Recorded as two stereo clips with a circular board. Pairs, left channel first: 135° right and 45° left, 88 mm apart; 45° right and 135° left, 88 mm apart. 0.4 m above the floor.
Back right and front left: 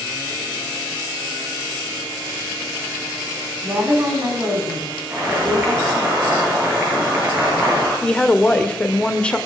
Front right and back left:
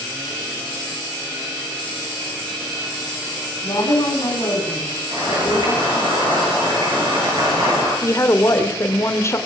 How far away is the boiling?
About 7.5 m.